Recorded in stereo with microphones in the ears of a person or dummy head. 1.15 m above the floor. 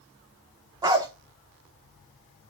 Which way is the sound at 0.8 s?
20° right (ahead or behind).